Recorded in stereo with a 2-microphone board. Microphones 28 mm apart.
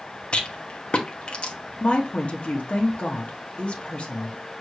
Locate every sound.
0.3 s a rattle: 40° left (ahead or behind), 1.0 m
1.8 s a woman speaking: 45° left (ahead or behind), 1.0 m